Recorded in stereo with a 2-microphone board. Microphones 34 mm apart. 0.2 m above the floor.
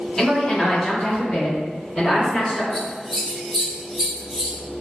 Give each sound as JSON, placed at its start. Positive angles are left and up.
{"t": 0.2, "sound": "a woman speaking", "side_deg": 15, "distance_m": 1.4}
{"t": 2.7, "sound": "scissors", "side_deg": -5, "distance_m": 1.8}